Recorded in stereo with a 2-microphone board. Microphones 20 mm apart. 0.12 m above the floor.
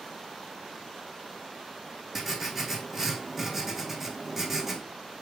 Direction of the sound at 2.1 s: 10° right (ahead or behind).